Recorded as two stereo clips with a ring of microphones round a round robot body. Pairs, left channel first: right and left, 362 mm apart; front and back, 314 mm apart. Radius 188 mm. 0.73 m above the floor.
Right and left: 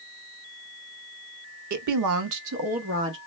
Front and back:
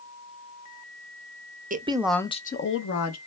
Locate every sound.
1.7 s a woman speaking: 120° left, 0.8 m; by 3.2 s 35° left, 1.1 m